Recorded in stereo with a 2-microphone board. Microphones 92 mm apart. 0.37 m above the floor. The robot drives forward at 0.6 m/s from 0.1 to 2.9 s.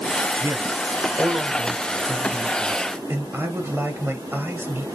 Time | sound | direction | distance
0.4 | a man speaking | 35° right (ahead or behind) | 1.5 m